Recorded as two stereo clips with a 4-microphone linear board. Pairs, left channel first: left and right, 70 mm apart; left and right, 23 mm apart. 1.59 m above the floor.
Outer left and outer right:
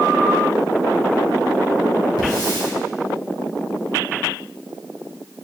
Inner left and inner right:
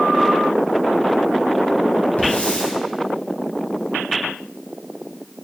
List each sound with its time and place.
2.2 s a hiss: 85° left, 2 m